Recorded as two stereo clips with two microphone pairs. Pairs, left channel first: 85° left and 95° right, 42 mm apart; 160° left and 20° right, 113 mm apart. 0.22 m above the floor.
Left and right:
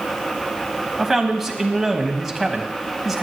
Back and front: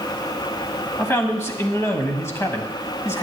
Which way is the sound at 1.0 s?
Straight behind.